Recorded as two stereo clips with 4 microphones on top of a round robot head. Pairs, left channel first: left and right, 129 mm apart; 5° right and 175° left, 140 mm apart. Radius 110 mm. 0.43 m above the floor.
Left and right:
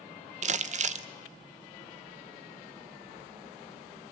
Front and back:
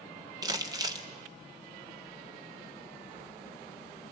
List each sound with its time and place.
0.4 s crumpling: 120° right, 0.7 m